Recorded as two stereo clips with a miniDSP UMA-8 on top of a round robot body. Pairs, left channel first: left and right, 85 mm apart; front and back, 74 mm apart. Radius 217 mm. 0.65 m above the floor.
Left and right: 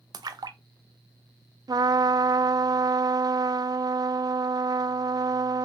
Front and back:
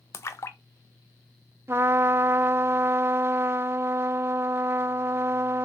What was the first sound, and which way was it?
A splash, 50° right.